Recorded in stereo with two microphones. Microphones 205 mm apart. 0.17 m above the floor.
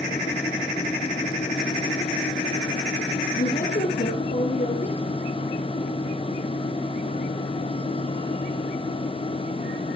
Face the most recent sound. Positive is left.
turn(degrees=40)  # may be behind; listen again after turning